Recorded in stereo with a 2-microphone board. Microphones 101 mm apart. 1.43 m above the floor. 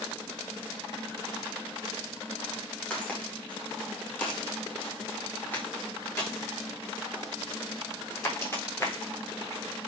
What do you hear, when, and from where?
2.9 s footsteps: 10° left (ahead or behind), 4.5 m; by 9.6 s 25° left (ahead or behind), 8.5 m